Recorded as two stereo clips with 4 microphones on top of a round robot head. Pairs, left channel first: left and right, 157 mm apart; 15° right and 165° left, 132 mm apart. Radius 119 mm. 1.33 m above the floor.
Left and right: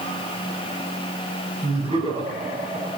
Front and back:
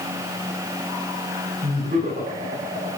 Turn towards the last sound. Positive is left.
turn(degrees=-130)